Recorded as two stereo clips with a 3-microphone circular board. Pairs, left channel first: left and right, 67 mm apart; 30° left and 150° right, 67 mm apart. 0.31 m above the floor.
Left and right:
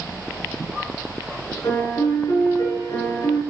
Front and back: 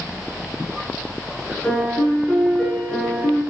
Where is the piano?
110° left, 4.5 m.